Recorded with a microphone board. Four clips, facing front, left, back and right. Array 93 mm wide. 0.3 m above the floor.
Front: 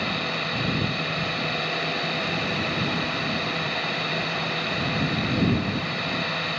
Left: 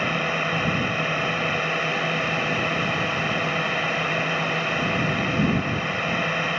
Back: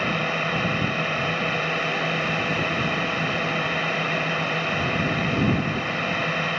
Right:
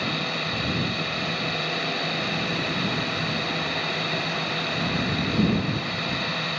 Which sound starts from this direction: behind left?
A drone, at 0.0 s.